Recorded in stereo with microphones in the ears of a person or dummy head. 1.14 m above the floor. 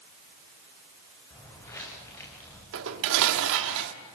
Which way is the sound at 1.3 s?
20° left (ahead or behind).